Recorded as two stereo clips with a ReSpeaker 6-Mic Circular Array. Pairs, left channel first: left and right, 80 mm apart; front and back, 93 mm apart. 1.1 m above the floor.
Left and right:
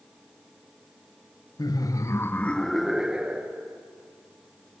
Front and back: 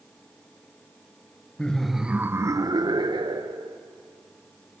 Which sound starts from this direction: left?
Laughter, at 1.6 s.